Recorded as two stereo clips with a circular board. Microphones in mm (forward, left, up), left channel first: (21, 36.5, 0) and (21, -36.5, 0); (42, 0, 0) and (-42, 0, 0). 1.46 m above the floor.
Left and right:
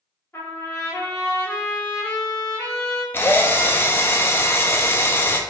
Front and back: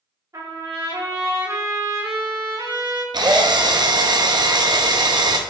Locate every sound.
0.3 s a trumpet: 140° left, 1.5 m
3.1 s a drill: 145° left, 0.6 m